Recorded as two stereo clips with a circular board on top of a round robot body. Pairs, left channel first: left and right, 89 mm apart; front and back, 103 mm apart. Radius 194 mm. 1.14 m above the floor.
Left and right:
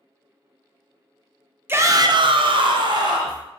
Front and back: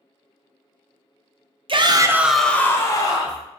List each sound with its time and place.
1.7 s a shout: 150° right, 0.5 m; by 3.4 s 50° right, 0.9 m